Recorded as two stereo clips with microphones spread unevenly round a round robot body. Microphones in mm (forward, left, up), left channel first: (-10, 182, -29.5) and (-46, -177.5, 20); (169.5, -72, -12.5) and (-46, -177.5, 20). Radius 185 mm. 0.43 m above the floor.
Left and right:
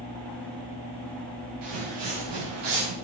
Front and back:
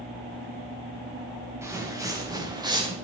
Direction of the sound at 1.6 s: 75° right.